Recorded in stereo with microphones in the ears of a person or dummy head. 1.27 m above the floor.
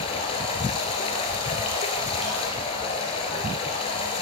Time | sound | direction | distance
0.0 | running water | 35° left (ahead or behind) | 1.9 m